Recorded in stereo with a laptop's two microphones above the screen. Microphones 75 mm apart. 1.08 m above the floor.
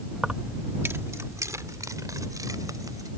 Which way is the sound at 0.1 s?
Centre (ahead or behind).